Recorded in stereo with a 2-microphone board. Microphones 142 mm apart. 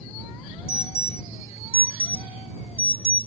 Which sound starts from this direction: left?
An alarm, at 0.7 s.